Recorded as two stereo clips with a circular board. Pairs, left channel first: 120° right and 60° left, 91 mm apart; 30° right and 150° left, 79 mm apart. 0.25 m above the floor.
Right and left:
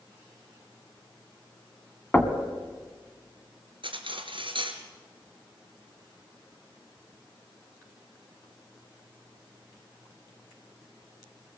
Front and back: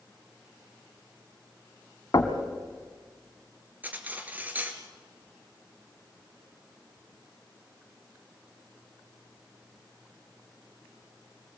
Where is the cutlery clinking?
80° left, 2 m.